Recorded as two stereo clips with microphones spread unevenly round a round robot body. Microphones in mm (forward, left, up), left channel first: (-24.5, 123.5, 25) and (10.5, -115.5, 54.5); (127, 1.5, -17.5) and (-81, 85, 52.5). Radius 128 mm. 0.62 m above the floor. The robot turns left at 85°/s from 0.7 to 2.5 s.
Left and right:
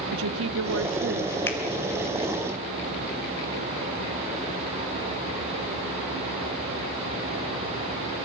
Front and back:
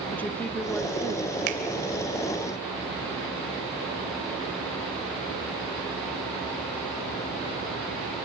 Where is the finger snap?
Straight behind, 3 m; by 1.6 s 170° left, 3 m.